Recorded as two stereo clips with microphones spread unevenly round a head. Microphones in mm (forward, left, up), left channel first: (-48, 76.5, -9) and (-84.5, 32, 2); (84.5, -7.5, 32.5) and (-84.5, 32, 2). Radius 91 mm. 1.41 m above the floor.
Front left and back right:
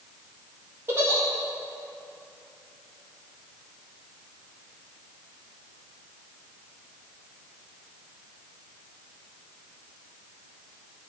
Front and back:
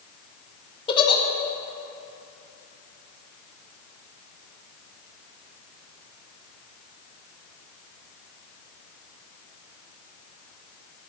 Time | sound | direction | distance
0.9 | a giggle | 70° right | 0.8 m